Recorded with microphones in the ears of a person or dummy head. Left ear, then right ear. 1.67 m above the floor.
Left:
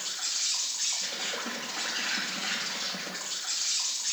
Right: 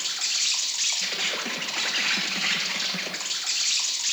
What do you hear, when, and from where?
0.0 s an insect: 55° right (ahead or behind), 1.1 m